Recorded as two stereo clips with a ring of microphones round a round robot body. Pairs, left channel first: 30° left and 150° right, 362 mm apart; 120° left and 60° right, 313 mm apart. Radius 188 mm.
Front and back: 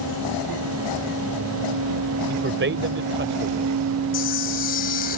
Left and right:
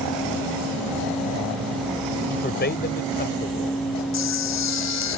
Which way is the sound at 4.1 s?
95° left.